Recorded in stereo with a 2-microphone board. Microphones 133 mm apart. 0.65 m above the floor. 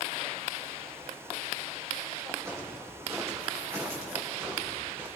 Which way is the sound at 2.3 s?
20° right (ahead or behind).